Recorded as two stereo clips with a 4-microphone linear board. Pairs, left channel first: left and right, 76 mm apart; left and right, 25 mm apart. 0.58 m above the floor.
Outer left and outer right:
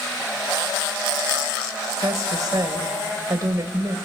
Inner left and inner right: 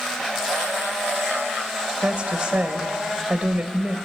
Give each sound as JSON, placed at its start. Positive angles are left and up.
{"t": 2.0, "sound": "a woman speaking", "side_deg": -55, "distance_m": 2.5}